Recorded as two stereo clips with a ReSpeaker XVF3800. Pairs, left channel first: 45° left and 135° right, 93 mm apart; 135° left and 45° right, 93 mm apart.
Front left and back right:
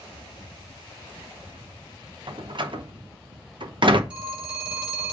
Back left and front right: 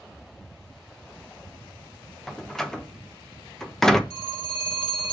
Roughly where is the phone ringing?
Behind left.